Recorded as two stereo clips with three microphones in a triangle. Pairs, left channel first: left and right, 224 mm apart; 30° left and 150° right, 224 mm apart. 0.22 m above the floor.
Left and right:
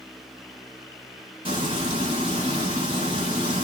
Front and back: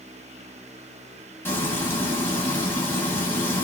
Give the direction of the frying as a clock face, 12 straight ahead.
1 o'clock.